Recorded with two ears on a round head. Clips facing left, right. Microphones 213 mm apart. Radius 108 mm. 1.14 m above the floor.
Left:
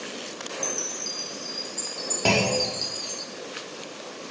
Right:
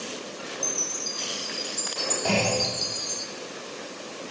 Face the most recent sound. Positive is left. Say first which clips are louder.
# left 2 dB
turn(degrees=65)  # may be behind; listen again after turning